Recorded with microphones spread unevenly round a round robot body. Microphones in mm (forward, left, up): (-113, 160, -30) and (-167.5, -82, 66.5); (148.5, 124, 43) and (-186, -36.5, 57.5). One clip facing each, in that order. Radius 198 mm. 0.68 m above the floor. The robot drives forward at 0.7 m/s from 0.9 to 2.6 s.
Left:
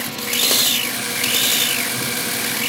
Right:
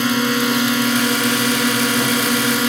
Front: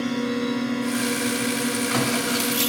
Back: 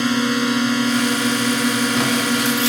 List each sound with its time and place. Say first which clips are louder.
0.0 s a drone: right 12 dB, back 5 dB; 95° right; by 2.7 s 100° right